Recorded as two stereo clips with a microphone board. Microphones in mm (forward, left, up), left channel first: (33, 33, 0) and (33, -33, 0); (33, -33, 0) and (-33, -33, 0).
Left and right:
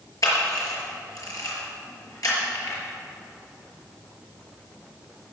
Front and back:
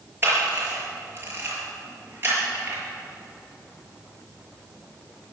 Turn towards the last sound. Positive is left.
turn(degrees=120)